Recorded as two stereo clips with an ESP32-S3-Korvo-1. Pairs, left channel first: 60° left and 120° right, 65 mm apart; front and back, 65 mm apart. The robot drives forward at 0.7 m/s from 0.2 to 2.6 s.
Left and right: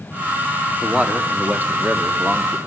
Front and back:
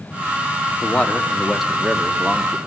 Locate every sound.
0.8 s a man speaking: 55° right, 1.5 m; by 2.6 s 135° right, 1.5 m